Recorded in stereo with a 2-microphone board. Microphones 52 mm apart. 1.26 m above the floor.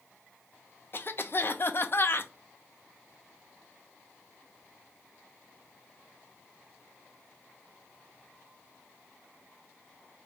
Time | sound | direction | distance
0.9 | a cough | 45° left (ahead or behind) | 0.5 m